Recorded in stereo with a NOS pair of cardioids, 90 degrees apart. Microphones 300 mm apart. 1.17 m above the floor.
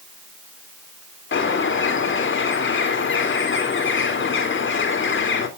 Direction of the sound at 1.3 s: 40° left.